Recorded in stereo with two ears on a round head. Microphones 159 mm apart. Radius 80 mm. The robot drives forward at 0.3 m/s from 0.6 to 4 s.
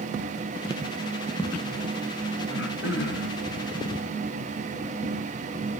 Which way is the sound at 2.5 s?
80° left.